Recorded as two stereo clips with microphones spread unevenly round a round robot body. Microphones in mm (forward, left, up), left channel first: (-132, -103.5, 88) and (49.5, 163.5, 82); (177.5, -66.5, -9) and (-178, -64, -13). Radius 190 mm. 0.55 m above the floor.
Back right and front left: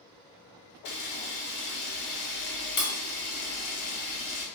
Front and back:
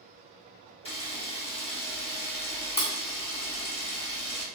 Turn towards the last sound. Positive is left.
turn(degrees=-70)